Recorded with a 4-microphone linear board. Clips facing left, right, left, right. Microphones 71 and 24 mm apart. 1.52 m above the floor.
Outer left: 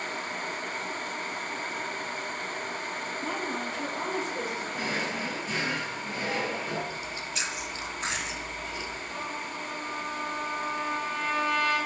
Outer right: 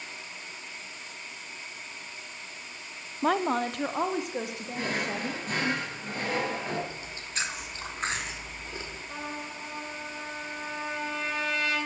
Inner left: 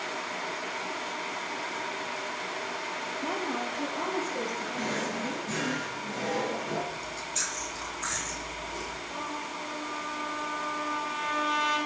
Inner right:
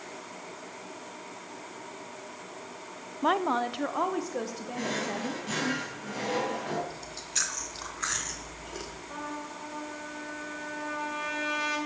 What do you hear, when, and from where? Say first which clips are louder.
3.2 s a woman speaking: outer right 10 dB, inner right 8 dB; 70° right (ahead or behind), 0.6 m; by 5.7 s 65° right (ahead or behind), 3.5 m
4.7 s a drawer: outer right 3 dB, inner right 3 dB; 50° right (ahead or behind), 4.5 m
6.9 s chewing: outer left 3 dB, inner left 1 dB; 35° right (ahead or behind), 2 m
9.1 s a trumpet: outer left 2 dB, inner left 3 dB; 70° right (ahead or behind), 8 m